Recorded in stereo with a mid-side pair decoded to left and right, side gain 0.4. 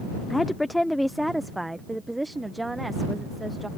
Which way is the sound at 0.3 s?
20° left.